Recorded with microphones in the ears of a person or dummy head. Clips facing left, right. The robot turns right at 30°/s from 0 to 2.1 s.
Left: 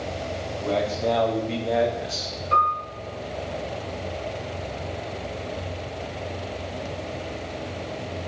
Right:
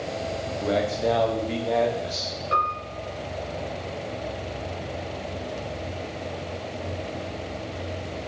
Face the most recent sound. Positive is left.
turn(degrees=-20)  # may be behind; listen again after turning